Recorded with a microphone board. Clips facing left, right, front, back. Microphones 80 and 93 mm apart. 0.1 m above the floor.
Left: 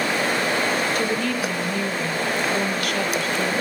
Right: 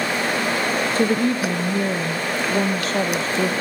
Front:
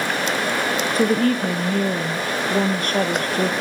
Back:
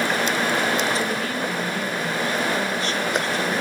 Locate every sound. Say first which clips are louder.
0.9 s a woman speaking: right 4 dB, front 7 dB; 35° right, 2.5 m